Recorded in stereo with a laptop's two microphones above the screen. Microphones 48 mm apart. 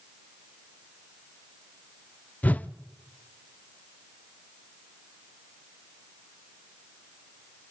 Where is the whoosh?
30° left (ahead or behind), 0.5 m.